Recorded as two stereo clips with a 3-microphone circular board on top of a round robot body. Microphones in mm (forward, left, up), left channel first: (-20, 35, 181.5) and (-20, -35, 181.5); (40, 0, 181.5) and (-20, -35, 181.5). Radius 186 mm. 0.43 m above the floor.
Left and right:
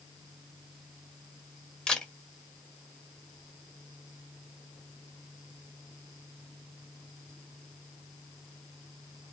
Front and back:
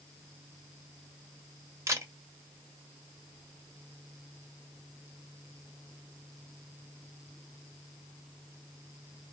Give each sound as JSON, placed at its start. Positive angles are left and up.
{"t": 1.9, "sound": "a camera shutter", "azimuth_deg": 165, "distance_m": 1.2}